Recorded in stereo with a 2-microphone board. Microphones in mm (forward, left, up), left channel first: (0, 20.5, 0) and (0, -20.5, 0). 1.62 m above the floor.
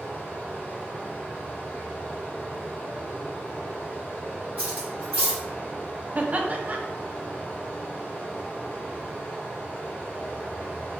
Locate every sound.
0.0 s running water: 50° left (ahead or behind), 2 m
4.6 s cutlery clinking: 35° right (ahead or behind), 2.0 m
6.2 s laughter: 40° right (ahead or behind), 0.7 m